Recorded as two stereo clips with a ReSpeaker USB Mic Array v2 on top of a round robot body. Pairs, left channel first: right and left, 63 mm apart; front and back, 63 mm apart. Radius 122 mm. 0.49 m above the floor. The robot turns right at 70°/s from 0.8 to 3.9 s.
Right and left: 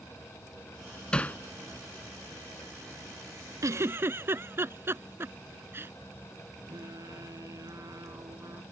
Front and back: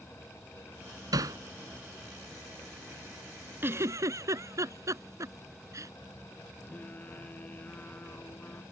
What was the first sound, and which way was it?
Hammering, 165° right.